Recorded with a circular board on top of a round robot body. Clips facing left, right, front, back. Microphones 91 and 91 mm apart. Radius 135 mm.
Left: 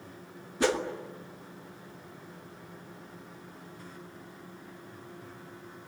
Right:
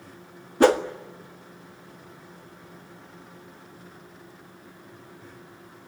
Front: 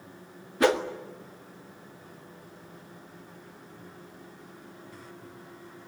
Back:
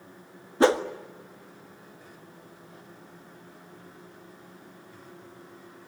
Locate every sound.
0.6 s a whoosh: 125° right, 1.6 m